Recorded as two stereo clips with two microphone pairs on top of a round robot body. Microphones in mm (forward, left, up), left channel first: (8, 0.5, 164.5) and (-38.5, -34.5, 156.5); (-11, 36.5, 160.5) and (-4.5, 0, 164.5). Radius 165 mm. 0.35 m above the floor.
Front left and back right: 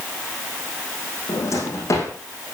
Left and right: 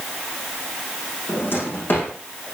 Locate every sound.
1.3 s a drawer: 75° left, 6.5 m